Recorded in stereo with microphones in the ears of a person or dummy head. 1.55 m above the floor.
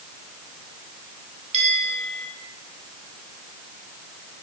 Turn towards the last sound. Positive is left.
turn(degrees=-40)  # may be behind; listen again after turning